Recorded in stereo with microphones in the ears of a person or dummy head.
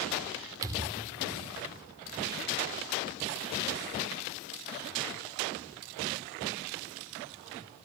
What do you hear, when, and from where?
0.6 s a thud: 20° right (ahead or behind), 2.5 m